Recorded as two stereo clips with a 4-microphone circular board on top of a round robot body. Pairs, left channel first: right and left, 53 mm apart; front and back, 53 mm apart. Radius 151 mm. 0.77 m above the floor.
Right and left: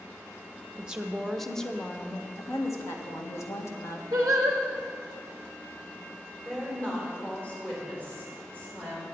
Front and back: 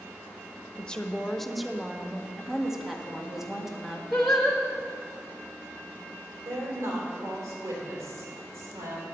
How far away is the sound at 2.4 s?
About 1.8 m.